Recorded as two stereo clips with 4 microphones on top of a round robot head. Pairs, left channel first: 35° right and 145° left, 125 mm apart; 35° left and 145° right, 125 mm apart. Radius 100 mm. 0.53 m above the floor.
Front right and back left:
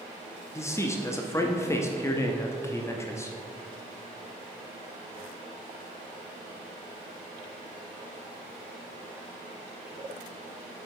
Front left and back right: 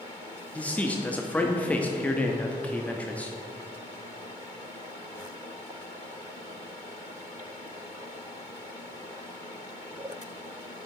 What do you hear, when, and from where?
0.6 s a man speaking: 25° right, 0.6 m